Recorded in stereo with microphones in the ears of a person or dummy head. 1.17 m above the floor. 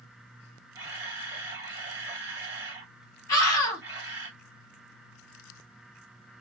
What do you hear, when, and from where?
0.8 s a camera shutter: 10° right (ahead or behind), 1.7 m
3.3 s a scream: 25° left (ahead or behind), 2.5 m